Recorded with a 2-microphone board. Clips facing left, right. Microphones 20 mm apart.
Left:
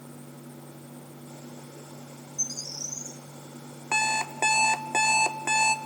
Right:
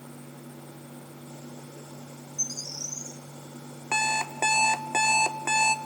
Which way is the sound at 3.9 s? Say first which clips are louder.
Even; 10° left (ahead or behind).